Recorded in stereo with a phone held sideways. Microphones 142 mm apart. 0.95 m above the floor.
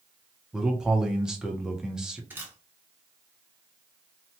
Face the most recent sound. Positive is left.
turn(degrees=-15)  # may be behind; listen again after turning